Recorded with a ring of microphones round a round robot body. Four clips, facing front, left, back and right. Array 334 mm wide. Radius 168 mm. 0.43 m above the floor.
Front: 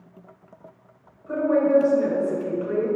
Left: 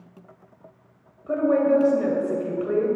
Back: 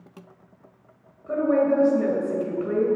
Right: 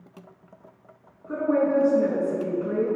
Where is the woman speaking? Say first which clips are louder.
Left 3 dB, front 1 dB; 110° left, 2.5 m.